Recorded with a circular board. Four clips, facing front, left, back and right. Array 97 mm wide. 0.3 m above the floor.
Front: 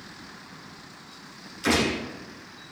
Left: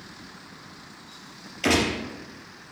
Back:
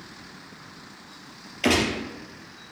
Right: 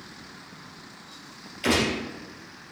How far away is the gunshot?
About 4 m.